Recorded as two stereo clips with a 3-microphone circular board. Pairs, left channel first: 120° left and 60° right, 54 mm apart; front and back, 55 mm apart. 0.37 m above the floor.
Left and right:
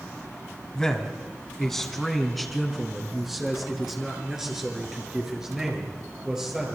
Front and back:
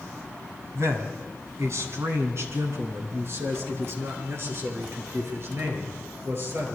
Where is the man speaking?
160° right, 2.5 m; by 6.8 s 135° right, 7.5 m.